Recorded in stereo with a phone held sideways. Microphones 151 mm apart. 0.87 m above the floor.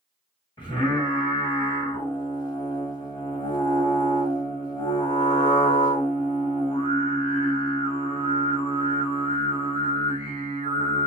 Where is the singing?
30° left (ahead or behind), 1.8 m.